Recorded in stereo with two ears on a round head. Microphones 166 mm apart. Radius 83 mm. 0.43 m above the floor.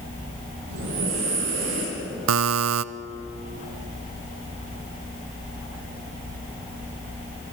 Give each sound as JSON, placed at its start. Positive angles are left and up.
{"t": 0.7, "sound": "breathing", "side_deg": -80, "distance_m": 9.5}
{"t": 2.3, "sound": "a buzzer", "side_deg": -75, "distance_m": 0.5}